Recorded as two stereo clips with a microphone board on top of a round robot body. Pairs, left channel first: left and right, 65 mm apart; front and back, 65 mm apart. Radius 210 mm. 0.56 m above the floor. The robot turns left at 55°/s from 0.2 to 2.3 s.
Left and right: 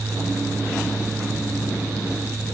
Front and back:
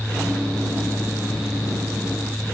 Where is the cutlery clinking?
I don't hear cutlery clinking.